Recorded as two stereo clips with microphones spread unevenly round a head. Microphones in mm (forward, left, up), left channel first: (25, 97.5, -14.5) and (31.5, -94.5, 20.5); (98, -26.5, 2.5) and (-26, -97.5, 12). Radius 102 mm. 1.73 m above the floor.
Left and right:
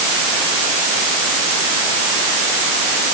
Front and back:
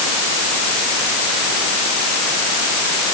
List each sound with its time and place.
Only background noise.